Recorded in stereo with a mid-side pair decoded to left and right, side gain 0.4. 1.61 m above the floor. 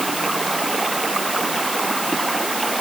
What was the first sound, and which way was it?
Running water, 15° right.